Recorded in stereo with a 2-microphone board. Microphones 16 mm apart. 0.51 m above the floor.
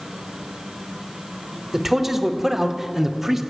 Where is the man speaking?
20° right (ahead or behind), 1.9 m.